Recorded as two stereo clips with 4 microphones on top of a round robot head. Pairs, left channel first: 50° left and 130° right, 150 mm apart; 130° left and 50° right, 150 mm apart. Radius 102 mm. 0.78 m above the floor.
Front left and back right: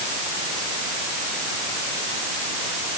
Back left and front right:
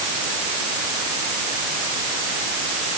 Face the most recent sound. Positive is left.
No sound to turn to.